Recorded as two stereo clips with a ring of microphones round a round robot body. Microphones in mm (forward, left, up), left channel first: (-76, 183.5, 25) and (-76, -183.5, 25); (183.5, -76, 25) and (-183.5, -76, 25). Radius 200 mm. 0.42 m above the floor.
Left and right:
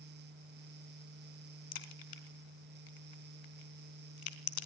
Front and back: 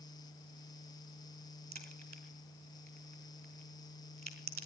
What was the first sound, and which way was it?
A crack, 105° left.